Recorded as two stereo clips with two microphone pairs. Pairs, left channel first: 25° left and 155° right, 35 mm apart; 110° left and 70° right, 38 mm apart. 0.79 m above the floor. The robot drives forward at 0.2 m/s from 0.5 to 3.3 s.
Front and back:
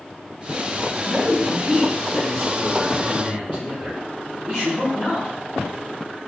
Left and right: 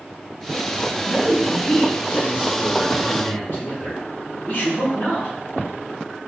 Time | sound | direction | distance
1.1 | a man speaking | 160° left | 1.3 m